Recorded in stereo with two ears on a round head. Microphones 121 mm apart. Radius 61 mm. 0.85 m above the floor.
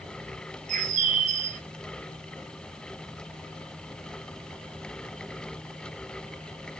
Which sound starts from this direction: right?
A bird, at 0.7 s.